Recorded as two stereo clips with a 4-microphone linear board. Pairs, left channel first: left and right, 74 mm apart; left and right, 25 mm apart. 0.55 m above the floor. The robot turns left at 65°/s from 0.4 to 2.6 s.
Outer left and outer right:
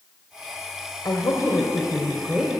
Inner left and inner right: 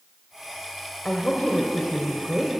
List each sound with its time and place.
1.1 s a woman speaking: 85° left, 2.5 m; by 2.5 s 10° right, 2.5 m